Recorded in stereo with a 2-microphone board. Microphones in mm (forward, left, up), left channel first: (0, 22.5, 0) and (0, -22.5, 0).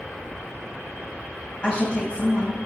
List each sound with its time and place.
1.6 s a woman speaking: 30° left (ahead or behind), 1.0 m